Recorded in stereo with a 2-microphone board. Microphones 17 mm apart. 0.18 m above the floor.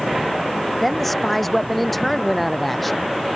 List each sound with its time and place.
0.8 s a woman speaking: 10° left (ahead or behind); by 3.1 s 5° left (ahead or behind)